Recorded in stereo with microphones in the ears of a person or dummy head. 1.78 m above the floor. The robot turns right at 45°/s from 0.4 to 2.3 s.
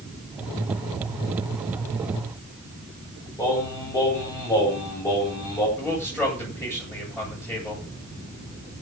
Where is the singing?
20° left (ahead or behind), 8 m.